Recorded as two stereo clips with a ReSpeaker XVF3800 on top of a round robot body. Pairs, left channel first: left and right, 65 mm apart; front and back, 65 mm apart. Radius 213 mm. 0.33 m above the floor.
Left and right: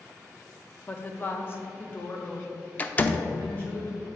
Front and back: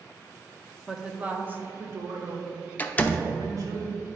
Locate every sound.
0.9 s a woman speaking: 95° left, 0.9 m; by 3.8 s 155° left, 2 m
2.8 s a door slam: 45° left, 0.7 m